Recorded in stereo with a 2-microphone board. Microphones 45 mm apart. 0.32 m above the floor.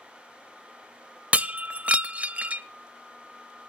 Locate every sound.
1.3 s breaking glass: 35° right (ahead or behind), 0.5 m